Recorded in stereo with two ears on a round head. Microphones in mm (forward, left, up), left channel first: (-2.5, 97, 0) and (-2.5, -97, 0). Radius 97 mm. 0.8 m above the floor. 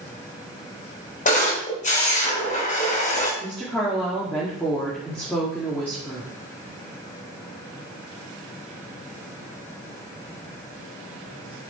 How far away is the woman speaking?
About 2 m.